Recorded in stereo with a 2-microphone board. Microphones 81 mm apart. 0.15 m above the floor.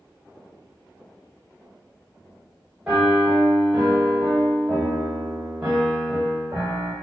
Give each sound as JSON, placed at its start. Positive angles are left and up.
{"t": 2.9, "sound": "a piano", "side_deg": -10, "distance_m": 1.2}